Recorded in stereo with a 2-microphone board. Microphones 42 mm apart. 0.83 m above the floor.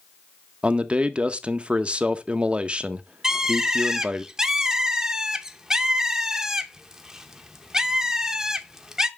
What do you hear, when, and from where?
0.6 s a man speaking: 25° right (ahead or behind), 0.7 m
3.2 s a bird: 15° right (ahead or behind), 0.7 m